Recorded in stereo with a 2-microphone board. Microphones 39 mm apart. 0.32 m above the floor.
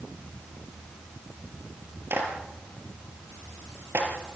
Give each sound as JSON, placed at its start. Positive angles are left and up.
{"t": 2.1, "sound": "a clap", "side_deg": -70, "distance_m": 5.0}